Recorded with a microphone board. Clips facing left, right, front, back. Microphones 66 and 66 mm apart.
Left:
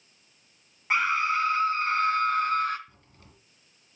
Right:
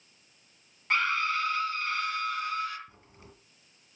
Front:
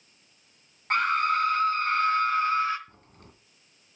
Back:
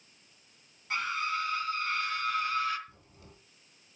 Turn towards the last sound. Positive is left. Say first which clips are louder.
# right 3 dB, front 2 dB
turn(degrees=-20)